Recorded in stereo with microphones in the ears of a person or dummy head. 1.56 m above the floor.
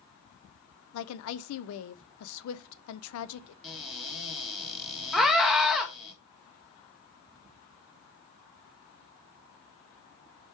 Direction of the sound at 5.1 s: 5° left (ahead or behind).